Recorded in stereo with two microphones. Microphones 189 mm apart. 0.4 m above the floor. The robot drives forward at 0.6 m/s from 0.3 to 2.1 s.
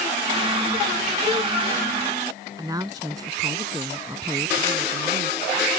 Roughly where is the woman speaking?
Centre.